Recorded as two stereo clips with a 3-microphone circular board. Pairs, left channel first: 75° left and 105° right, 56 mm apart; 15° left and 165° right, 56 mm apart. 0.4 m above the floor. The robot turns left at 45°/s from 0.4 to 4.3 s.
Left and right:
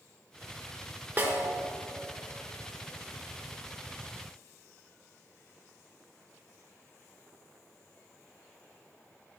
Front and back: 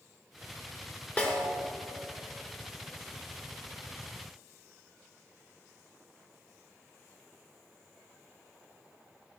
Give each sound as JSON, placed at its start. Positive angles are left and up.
{"t": 1.2, "sound": "a snare drum", "azimuth_deg": -50, "distance_m": 0.8}